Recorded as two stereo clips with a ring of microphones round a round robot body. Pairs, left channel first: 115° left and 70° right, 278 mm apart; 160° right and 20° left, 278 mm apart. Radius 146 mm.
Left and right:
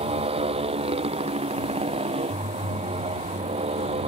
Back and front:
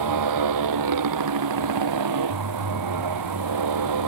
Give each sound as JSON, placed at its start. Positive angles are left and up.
{"t": 0.0, "sound": "a motorcycle", "azimuth_deg": 5}